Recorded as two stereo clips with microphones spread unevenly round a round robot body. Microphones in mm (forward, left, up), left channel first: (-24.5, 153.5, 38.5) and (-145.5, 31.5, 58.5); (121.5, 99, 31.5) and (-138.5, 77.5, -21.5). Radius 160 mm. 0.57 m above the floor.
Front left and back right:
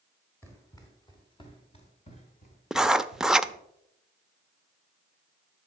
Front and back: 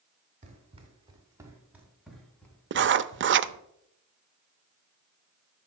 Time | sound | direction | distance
0.4 | running footsteps | 120° left | 3 m
2.7 | writing | 140° left | 0.6 m